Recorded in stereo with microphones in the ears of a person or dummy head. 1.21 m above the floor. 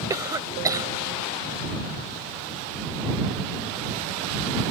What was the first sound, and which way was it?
A cough, 25° right (ahead or behind).